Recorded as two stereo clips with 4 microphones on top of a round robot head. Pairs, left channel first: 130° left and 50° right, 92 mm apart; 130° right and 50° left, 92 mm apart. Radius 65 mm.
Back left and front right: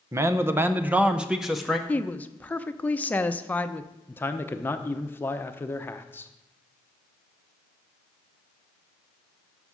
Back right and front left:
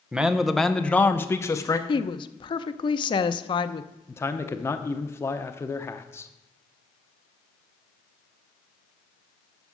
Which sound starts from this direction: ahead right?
A man speaking, at 0.1 s.